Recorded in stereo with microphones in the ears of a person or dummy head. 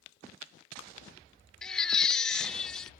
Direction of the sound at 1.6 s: Centre (ahead or behind).